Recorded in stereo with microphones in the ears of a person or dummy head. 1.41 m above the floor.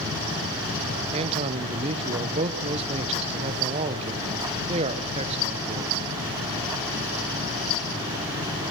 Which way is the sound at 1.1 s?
35° right (ahead or behind).